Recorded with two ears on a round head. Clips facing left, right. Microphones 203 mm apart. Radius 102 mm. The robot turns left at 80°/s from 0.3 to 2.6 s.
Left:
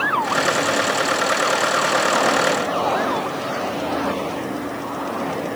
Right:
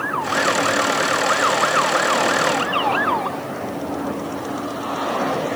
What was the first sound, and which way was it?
Only background noise.